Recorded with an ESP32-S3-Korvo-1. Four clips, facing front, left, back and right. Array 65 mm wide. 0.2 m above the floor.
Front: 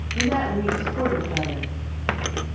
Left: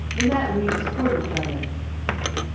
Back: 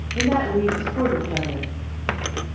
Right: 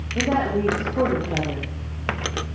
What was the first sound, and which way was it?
A woman speaking, 115° right.